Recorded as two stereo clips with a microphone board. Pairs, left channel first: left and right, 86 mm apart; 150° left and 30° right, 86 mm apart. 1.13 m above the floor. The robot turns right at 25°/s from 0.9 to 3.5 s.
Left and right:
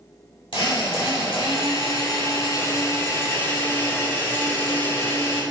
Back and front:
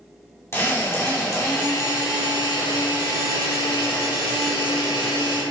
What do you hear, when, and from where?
0.5 s a drill: 90° left, 2.5 m; by 5.4 s 155° left, 2.5 m